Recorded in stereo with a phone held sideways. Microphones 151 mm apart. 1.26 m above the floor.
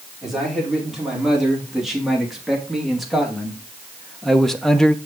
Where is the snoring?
No snoring in this recording.